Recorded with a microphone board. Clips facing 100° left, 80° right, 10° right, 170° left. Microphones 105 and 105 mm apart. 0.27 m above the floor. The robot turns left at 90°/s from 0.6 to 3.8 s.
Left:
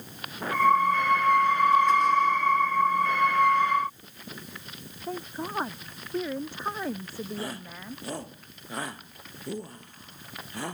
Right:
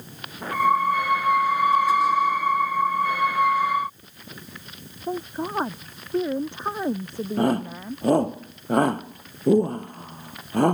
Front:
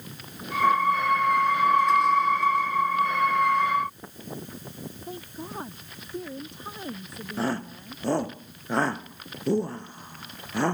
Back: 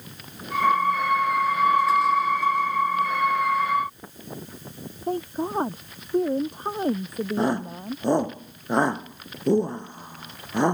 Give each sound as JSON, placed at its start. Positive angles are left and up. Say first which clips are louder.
{"t": 5.1, "sound": "a woman speaking", "louder": "right 6 dB, back 14 dB", "azimuth_deg": -150}
{"t": 7.4, "sound": "a shout", "louder": "right 14 dB, back 3 dB", "azimuth_deg": -120}